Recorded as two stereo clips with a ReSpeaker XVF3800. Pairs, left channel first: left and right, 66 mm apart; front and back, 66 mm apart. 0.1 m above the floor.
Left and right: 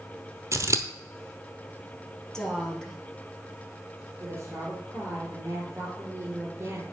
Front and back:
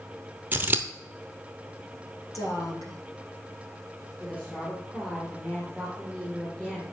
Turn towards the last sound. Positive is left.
turn(degrees=-70)